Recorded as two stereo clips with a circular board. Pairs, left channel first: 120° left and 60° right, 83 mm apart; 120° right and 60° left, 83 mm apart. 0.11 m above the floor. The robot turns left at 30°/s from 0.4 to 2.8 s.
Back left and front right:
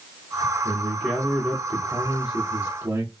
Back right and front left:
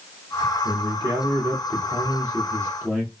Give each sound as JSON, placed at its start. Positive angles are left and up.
{"t": 0.6, "sound": "a man speaking", "azimuth_deg": 35, "distance_m": 2.0}